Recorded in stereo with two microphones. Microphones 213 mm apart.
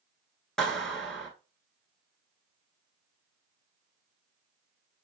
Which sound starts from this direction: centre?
A clap, at 0.6 s.